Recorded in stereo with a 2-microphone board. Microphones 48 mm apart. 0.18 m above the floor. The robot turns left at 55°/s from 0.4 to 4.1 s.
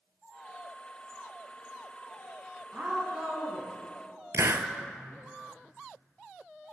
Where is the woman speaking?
30° right (ahead or behind), 1.3 m; by 5.2 s 5° left (ahead or behind), 1.3 m.